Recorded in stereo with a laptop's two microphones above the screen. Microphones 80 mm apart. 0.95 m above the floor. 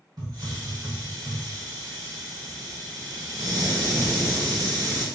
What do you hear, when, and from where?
0.2 s a hiss: 65° right (ahead or behind), 1.5 m